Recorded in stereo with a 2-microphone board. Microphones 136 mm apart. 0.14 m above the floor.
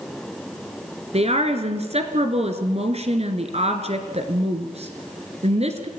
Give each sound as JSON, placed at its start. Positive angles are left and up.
{"t": 1.1, "sound": "a woman speaking", "side_deg": -50, "distance_m": 2.5}